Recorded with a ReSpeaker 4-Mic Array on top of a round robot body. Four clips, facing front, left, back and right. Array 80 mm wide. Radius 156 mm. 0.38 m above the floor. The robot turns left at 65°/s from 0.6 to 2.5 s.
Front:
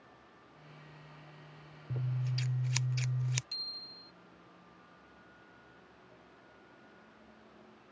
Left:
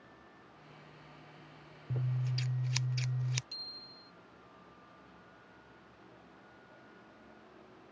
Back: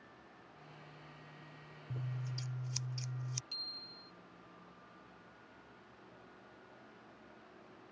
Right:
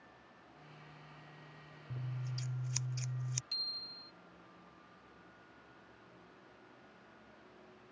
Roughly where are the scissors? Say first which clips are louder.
Left 7 dB, front 6 dB; left.